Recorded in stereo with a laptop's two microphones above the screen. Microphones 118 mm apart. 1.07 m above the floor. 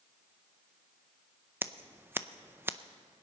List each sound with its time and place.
1.6 s scissors: 20° right (ahead or behind), 0.5 m